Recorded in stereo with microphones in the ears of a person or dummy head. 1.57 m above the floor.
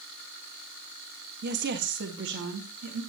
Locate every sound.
1.4 s a woman speaking: 50° right (ahead or behind), 1.3 m; by 3.0 s 65° right (ahead or behind), 3 m